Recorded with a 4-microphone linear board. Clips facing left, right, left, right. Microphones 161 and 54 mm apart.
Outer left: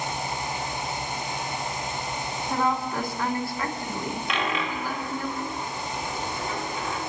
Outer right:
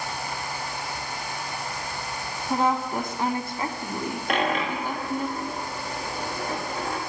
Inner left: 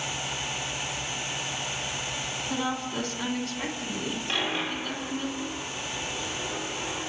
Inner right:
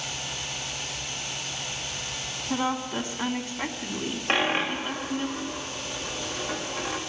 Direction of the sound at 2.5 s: 25° right (ahead or behind).